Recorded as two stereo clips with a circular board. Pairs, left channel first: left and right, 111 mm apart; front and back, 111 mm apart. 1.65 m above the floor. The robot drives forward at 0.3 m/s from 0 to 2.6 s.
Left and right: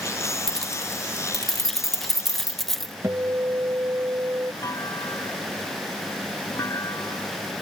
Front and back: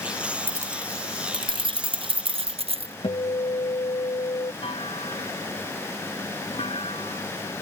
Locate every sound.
0.5 s keys jangling: 170° left; by 2.9 s straight behind
3.0 s a guitar: 30° right
4.6 s a clunk: 30° left